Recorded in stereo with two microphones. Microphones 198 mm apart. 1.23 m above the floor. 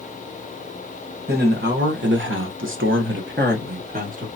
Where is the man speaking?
50° right (ahead or behind), 1.1 m; by 4.3 s 40° right (ahead or behind), 1.2 m.